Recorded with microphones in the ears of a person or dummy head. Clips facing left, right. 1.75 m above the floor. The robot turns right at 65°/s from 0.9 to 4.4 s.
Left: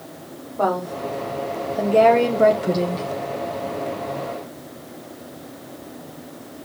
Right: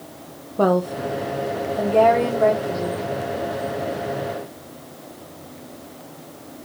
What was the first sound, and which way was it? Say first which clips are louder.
A woman speaking: right 4 dB; 45° right.